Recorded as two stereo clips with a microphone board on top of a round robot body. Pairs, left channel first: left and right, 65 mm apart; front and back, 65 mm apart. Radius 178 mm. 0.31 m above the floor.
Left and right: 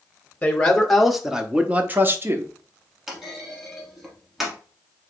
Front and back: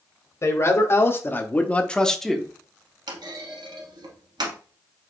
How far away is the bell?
I don't hear a bell.